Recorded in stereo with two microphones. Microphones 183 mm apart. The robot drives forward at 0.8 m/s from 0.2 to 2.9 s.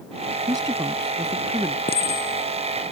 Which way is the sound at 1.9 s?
55° left (ahead or behind).